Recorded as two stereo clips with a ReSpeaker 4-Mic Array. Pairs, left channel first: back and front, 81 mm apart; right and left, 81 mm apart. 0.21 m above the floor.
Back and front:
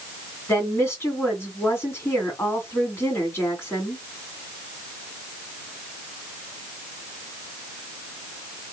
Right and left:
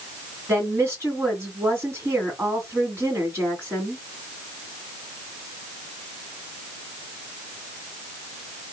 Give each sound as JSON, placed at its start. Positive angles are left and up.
{"t": 0.5, "sound": "a woman speaking", "azimuth_deg": 130, "distance_m": 1.9}